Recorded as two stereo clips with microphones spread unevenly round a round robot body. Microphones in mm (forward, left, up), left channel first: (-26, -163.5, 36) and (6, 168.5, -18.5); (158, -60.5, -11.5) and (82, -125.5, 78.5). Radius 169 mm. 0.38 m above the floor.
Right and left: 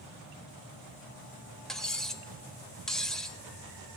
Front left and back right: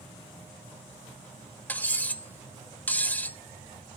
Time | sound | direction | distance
1.7 | cutlery clinking | 5° right | 0.9 m